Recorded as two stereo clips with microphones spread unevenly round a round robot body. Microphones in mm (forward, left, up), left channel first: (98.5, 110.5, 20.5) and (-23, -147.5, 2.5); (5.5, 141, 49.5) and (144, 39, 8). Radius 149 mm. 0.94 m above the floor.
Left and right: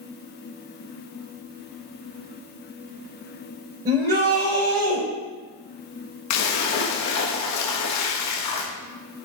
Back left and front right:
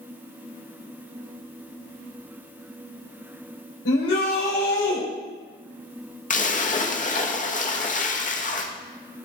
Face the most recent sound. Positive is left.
turn(degrees=95)